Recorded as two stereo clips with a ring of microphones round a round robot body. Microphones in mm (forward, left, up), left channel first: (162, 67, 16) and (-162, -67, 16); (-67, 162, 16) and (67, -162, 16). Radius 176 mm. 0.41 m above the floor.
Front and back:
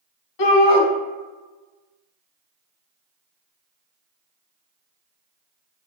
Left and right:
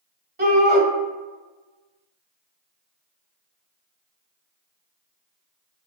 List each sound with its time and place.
0.4 s a shout: 5° right, 2 m